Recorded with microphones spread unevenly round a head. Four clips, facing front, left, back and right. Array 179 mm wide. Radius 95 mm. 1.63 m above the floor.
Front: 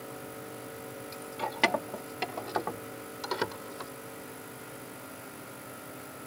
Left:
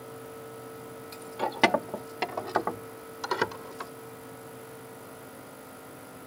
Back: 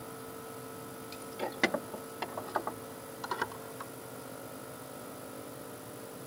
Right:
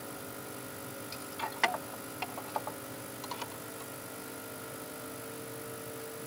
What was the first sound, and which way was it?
Keys jangling, 120° left.